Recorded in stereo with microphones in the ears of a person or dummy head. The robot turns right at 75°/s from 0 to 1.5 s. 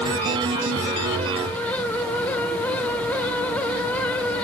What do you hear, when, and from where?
Only background noise.